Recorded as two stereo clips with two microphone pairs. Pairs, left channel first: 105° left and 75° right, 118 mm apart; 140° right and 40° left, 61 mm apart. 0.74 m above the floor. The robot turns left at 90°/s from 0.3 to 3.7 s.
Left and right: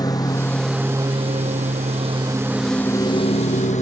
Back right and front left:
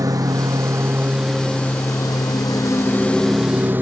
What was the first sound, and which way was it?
A lawn mower, 45° left.